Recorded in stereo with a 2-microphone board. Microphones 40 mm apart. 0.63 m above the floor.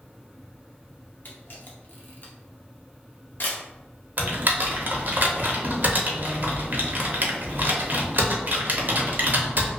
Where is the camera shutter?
55° left (ahead or behind), 0.8 m.